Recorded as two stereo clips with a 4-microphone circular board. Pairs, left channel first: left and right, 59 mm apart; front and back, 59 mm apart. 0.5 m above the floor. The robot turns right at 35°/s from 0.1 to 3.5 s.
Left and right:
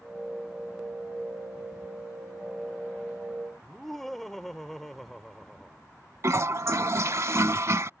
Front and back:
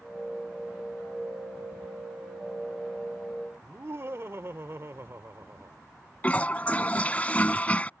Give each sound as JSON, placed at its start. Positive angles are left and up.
{"t": 3.6, "sound": "laughter", "azimuth_deg": 175}
{"t": 6.2, "sound": "a toilet flushing", "azimuth_deg": -60}